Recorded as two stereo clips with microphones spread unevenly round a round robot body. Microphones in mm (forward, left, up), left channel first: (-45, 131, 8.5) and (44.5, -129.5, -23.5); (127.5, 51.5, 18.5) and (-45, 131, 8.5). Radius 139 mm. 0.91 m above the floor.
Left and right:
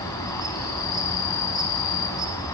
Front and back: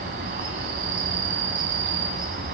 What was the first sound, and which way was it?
An insect, 175° left.